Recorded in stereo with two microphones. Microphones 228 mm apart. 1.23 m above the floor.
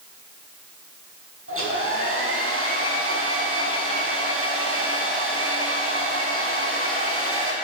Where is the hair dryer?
65° right (ahead or behind), 5.5 m.